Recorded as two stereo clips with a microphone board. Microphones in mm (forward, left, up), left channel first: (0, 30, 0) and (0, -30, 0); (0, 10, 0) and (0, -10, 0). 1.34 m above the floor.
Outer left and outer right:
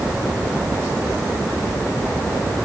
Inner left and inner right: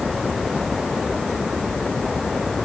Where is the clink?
No clink in this recording.